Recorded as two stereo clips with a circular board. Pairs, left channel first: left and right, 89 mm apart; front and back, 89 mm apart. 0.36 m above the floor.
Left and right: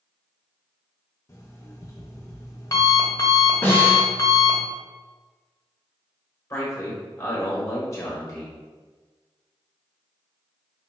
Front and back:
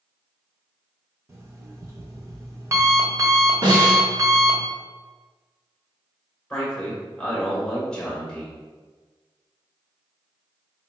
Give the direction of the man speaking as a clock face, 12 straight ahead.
10 o'clock.